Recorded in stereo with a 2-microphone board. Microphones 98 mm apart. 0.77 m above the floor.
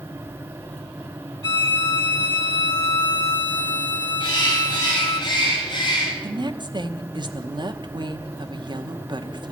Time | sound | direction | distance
1.4 | a violin | 45° left (ahead or behind) | 1.8 m
4.2 | a bird | 50° left (ahead or behind) | 3.5 m
6.2 | a woman speaking | 50° right (ahead or behind) | 1.0 m